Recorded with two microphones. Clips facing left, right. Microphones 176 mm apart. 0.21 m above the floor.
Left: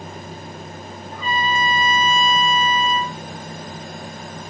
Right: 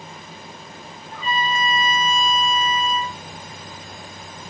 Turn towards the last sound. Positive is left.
turn(degrees=25)  # may be behind; listen again after turning